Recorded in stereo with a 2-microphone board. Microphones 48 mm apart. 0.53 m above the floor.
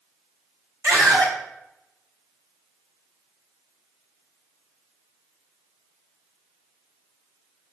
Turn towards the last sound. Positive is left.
turn(degrees=-70)  # may be behind; listen again after turning